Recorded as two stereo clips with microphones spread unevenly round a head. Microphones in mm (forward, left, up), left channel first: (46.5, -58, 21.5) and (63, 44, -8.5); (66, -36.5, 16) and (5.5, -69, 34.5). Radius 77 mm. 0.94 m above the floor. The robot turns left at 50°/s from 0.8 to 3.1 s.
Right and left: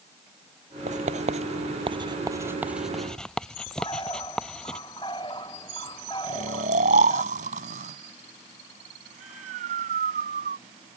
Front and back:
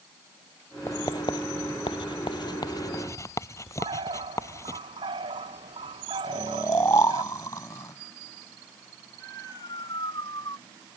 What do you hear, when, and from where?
0.9 s writing: 95° left; by 4.8 s 15° right
3.8 s a bird: 165° right
6.2 s snoring: 95° left